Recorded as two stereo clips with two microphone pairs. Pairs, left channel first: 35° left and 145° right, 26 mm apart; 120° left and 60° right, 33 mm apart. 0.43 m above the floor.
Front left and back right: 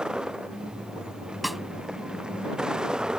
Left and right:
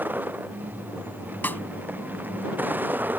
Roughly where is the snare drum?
Behind left.